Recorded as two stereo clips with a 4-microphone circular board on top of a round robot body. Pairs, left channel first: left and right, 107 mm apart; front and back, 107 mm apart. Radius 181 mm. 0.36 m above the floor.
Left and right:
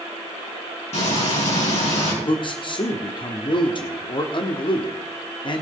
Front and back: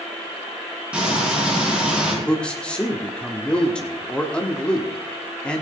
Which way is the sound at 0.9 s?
100° left.